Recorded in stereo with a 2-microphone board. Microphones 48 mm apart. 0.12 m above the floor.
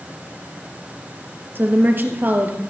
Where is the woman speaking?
40° right (ahead or behind), 2.5 m.